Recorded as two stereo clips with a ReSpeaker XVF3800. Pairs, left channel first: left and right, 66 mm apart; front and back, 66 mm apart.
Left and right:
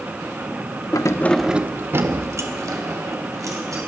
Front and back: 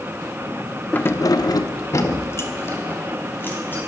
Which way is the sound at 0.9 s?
65° left.